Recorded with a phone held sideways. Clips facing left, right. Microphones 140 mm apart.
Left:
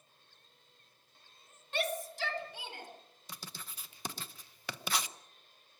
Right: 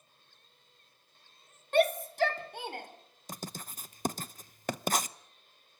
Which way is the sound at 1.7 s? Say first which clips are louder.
Right 10 dB; 50° right (ahead or behind).